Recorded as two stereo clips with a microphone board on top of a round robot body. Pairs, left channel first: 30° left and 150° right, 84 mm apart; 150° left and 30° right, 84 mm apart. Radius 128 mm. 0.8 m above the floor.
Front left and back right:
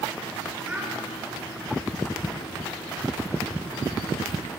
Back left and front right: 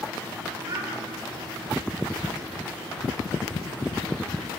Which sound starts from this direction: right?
A child speaking, at 0.7 s.